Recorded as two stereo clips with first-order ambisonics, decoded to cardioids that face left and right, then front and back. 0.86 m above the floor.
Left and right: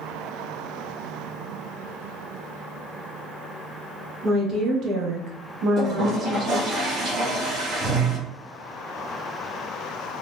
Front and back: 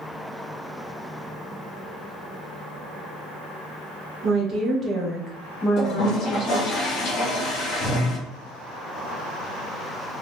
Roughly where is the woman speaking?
Behind right.